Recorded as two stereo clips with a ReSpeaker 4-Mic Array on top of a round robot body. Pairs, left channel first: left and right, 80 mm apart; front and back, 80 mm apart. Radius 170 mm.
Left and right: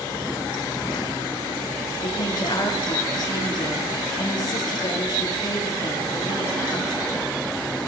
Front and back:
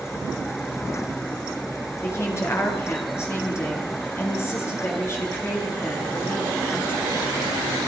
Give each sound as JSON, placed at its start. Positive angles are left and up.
{"t": 2.0, "sound": "a woman speaking", "azimuth_deg": 55, "distance_m": 9.0}